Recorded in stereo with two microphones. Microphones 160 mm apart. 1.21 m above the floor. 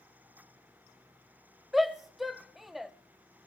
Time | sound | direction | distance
1.7 | a shout | centre (ahead or behind) | 0.8 m